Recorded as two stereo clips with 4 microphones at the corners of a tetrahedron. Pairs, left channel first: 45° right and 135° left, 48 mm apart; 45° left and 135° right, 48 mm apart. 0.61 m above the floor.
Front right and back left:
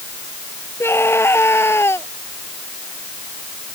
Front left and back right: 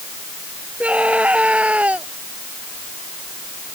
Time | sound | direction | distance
0.8 | a scream | 75° right | ?